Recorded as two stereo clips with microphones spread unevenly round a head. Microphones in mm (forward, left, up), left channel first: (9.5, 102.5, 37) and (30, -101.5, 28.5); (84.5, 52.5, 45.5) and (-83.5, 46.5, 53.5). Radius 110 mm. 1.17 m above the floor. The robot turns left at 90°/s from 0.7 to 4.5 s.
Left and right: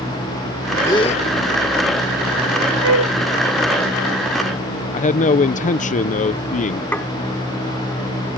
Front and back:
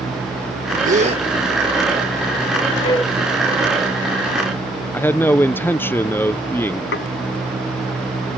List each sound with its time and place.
0.8 s a gasp: 170° left; by 1.2 s 135° left
2.8 s a flute: 65° right; by 3.1 s 95° right
4.9 s a man speaking: 70° left
6.9 s dishes clattering: 15° left